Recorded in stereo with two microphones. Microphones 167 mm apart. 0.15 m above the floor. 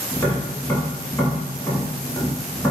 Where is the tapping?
15° left (ahead or behind), 1.1 m.